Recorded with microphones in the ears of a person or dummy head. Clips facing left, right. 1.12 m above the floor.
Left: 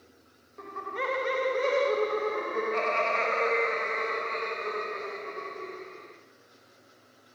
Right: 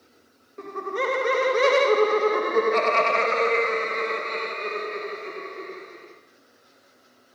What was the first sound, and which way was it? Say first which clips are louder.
Laughter: right 7 dB; 40° right (ahead or behind).